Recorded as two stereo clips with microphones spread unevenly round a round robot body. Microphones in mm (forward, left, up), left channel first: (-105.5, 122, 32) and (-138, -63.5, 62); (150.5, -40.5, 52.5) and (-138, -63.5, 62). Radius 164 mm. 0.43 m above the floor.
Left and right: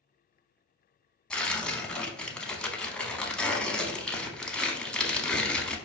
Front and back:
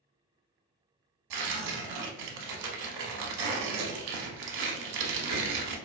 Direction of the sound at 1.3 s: 170° left.